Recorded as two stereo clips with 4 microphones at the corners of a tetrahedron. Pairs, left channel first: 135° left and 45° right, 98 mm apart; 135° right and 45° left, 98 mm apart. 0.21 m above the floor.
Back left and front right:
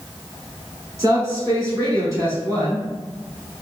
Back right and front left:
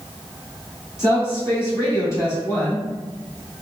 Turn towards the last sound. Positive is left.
turn(degrees=-85)